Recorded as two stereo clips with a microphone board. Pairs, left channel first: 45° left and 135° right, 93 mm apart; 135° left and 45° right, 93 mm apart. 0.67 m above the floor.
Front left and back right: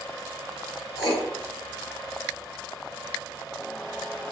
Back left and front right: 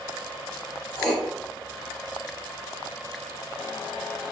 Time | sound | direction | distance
1.0 | writing | 45° left | 1.0 m